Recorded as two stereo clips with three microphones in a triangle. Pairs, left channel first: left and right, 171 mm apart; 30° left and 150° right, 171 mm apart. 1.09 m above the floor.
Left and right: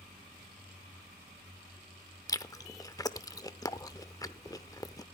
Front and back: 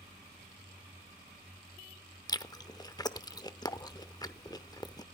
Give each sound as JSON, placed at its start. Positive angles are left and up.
{"t": 2.3, "sound": "chewing", "azimuth_deg": 55, "distance_m": 0.8}